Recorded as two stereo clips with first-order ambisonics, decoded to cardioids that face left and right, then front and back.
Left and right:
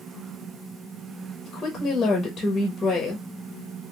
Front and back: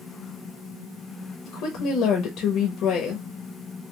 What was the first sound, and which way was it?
A woman speaking, 15° left.